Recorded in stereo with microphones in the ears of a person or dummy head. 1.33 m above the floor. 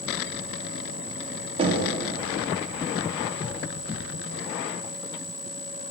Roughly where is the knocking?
Right.